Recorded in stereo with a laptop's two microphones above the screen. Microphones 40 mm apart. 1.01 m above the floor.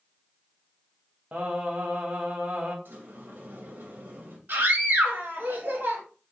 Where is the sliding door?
55° right (ahead or behind), 1.4 m.